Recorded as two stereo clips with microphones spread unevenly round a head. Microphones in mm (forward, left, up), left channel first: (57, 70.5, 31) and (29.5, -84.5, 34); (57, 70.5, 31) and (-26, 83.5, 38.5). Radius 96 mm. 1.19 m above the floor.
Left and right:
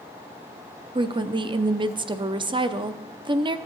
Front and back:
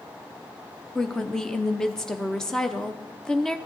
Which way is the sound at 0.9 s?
80° right.